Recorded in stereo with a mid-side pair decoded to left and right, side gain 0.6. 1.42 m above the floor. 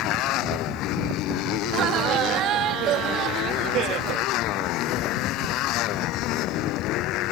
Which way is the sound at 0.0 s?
65° left.